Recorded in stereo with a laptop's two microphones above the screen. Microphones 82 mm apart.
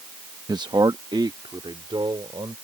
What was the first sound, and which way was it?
A man speaking, 50° right (ahead or behind).